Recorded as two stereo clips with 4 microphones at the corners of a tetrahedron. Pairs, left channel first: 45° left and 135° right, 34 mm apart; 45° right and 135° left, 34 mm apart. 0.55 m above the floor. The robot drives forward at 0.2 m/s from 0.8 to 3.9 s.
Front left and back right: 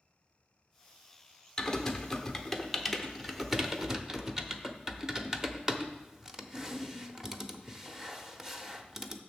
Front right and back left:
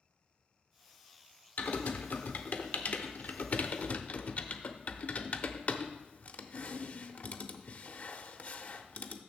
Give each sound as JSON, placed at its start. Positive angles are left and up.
{"t": 1.6, "sound": "typing on a keyboard", "azimuth_deg": -30, "distance_m": 0.9}